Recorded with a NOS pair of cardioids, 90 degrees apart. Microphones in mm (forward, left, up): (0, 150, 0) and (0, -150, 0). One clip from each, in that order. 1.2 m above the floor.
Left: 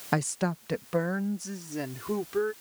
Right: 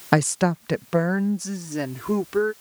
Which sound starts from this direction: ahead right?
A woman speaking, at 0.1 s.